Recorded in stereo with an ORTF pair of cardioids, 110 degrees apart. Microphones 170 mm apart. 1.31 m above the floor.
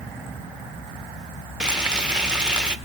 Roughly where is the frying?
Ahead.